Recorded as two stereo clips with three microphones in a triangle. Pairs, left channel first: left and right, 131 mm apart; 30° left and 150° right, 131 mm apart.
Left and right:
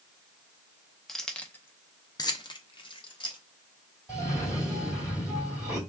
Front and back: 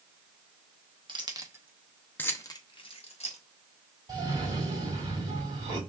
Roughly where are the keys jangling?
Behind.